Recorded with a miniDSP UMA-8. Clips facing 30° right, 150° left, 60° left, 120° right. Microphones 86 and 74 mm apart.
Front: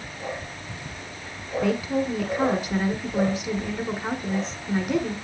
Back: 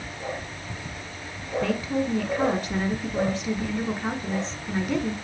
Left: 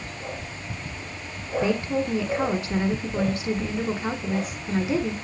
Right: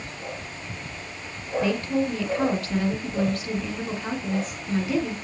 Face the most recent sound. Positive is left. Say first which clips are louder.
# front 2 dB, even
turn(degrees=45)